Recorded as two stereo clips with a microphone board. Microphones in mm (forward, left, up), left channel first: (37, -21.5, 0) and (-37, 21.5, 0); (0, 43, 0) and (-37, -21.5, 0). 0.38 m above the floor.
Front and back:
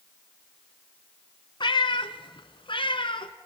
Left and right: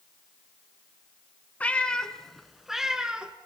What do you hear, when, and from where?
1.6 s a cat meowing: 10° right, 1.0 m; by 3.3 s 45° right, 1.6 m